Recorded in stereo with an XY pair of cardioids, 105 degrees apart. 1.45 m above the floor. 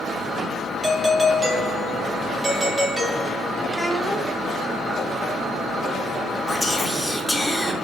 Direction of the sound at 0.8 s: 20° right.